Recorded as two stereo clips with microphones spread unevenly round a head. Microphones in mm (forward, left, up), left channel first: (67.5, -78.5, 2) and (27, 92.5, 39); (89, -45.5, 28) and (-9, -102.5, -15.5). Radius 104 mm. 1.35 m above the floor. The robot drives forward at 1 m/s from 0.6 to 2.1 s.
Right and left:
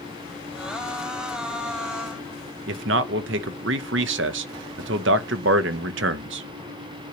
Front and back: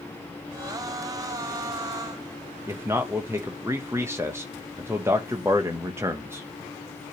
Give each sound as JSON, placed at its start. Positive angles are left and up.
{"t": 2.7, "sound": "a man speaking", "azimuth_deg": 125, "distance_m": 0.9}